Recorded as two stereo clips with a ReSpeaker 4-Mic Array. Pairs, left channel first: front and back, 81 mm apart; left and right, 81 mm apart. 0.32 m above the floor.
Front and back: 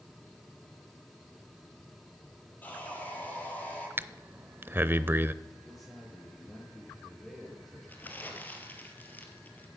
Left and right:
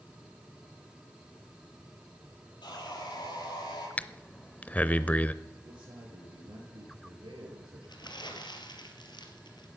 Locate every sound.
2.6 s sawing: 70° left, 9 m
4.0 s breathing: 145° left, 0.5 m
5.6 s a man speaking: 90° right, 8.5 m
7.9 s crumpling: 65° left, 2.5 m